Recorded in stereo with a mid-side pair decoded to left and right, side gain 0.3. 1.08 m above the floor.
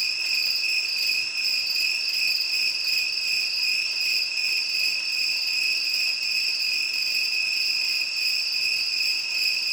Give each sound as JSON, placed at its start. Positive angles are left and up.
{"t": 0.0, "sound": "an insect", "azimuth_deg": -65, "distance_m": 1.8}